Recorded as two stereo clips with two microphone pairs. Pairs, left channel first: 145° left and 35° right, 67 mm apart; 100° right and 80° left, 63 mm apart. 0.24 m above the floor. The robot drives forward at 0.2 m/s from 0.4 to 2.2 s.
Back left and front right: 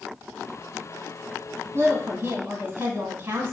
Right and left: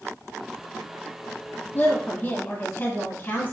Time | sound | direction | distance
1.7 | a woman speaking | 65° right | 1.3 m